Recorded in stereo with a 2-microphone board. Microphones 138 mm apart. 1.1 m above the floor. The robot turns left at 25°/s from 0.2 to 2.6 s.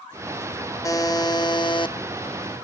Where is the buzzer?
25° left (ahead or behind), 0.7 m; by 2.0 s 35° left (ahead or behind), 0.7 m.